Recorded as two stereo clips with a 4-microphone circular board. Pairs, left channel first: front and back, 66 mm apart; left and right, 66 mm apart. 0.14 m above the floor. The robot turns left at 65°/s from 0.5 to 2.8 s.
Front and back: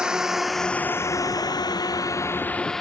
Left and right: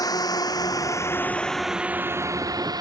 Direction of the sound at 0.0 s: 100° left.